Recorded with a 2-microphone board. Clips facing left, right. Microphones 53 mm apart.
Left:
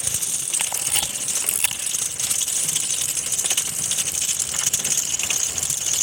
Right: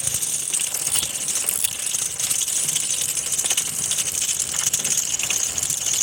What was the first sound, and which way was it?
A camera shutter, 65° left (ahead or behind).